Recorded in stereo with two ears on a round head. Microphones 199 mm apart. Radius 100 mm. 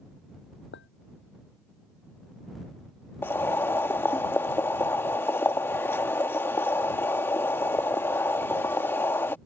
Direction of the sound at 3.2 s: 10° left (ahead or behind).